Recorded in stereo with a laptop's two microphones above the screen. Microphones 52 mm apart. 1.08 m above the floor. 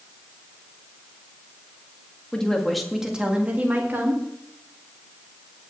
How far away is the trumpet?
No trumpet in this recording.